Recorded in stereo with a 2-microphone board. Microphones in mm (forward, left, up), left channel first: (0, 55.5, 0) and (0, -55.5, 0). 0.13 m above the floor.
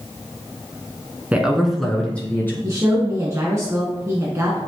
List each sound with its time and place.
1.3 s a man speaking: 15° right (ahead or behind), 1.2 m; by 2.5 s 20° left (ahead or behind), 1.9 m
2.6 s a woman speaking: 25° right (ahead or behind), 1.4 m